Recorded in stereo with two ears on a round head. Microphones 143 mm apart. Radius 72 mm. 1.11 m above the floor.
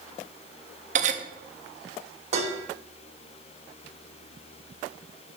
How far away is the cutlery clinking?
About 0.8 m.